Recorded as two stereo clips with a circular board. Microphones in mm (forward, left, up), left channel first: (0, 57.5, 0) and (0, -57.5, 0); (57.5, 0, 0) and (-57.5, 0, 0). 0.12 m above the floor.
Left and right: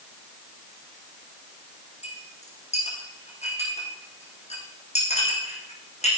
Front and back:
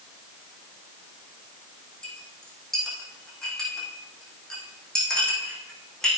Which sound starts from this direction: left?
A clink, at 2.0 s.